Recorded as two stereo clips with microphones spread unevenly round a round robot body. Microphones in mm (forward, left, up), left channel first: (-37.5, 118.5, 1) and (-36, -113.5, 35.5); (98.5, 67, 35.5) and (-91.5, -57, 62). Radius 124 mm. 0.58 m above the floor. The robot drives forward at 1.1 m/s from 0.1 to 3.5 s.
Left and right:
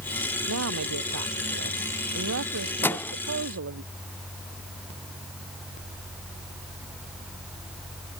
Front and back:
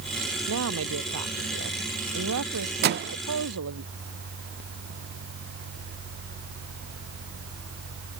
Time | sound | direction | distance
0.5 | a woman speaking | 115° right | ?
2.8 | a microwave | 165° left | ?